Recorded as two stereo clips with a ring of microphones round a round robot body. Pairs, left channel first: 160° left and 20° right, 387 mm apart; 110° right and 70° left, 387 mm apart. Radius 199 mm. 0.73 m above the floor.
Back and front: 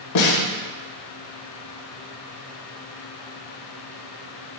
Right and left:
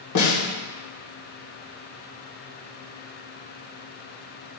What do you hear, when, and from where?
0.1 s a snare drum: 160° right, 3 m